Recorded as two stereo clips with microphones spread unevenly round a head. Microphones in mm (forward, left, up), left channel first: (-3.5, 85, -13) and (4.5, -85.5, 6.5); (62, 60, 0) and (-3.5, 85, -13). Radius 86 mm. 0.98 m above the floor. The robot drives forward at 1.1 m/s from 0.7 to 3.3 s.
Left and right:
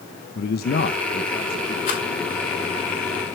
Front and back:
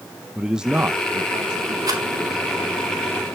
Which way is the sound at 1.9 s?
135° left.